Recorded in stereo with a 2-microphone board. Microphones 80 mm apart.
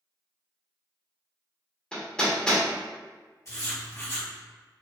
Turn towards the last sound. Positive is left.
turn(degrees=45)  # may be behind; listen again after turning